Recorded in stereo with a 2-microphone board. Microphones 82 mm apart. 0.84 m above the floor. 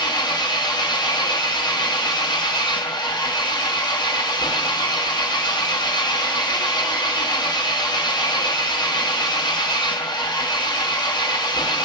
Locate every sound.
0.0 s an engine running: 60° left (ahead or behind), 0.8 m